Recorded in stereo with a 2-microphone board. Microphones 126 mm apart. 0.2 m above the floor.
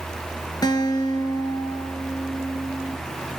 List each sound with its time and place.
0.6 s a guitar: 30° left (ahead or behind), 3.5 m